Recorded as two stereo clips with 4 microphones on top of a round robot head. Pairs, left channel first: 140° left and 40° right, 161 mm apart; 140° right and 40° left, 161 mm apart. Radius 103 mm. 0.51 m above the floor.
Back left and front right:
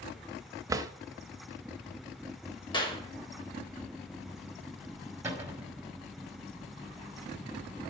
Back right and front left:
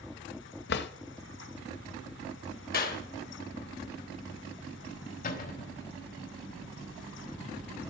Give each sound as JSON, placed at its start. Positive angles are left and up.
{"t": 0.7, "sound": "a drawer", "azimuth_deg": -115, "distance_m": 0.6}
{"t": 2.7, "sound": "a clap", "azimuth_deg": -160, "distance_m": 2.0}
{"t": 5.2, "sound": "a cupboard door", "azimuth_deg": -115, "distance_m": 2.5}